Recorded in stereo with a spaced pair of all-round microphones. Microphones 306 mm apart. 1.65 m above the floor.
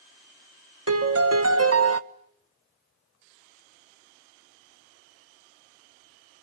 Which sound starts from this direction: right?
A piano, at 0.9 s.